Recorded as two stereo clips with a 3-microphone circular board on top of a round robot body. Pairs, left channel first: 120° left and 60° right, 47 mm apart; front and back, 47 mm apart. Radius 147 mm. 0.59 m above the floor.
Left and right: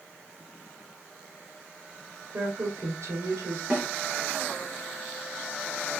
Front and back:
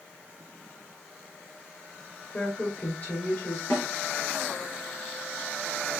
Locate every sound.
2.3 s a woman speaking: 45° right, 3 m
3.7 s a snare drum: straight ahead, 5 m